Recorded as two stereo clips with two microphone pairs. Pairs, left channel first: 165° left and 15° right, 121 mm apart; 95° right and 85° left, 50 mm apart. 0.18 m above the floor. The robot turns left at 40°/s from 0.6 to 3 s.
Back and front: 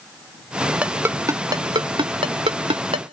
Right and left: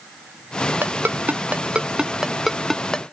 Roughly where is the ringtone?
Ahead left.